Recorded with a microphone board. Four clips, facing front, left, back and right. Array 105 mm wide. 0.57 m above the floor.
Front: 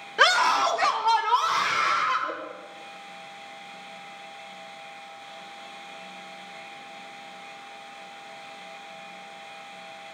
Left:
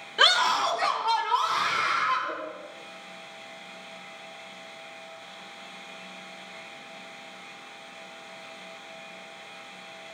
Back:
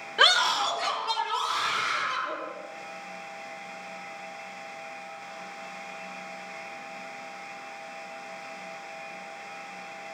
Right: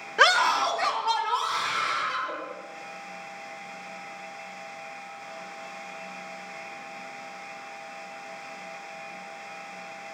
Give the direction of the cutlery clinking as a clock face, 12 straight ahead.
No cutlery clinking in this recording.